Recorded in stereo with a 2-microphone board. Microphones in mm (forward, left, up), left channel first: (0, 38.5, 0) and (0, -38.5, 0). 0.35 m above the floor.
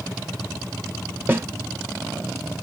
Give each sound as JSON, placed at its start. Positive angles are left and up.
{"t": 1.3, "sound": "a snare drum", "side_deg": -30, "distance_m": 1.1}